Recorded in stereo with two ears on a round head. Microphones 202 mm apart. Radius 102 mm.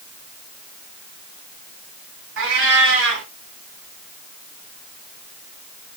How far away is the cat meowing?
About 3 m.